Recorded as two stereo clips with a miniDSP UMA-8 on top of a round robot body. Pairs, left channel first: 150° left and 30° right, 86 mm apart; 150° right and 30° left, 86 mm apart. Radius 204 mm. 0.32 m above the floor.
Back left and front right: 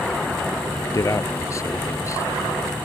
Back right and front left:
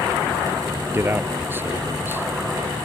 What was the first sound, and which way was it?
A man speaking, 95° left.